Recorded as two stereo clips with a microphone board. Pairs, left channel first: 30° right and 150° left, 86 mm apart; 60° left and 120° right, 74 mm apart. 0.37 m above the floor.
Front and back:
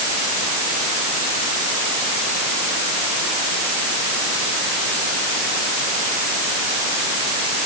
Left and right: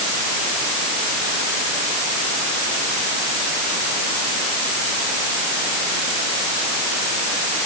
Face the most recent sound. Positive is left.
No sound to turn to.